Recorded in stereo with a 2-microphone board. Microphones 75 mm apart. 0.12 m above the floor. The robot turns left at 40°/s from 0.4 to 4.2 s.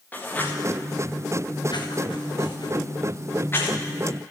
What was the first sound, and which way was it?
Writing, 20° left (ahead or behind).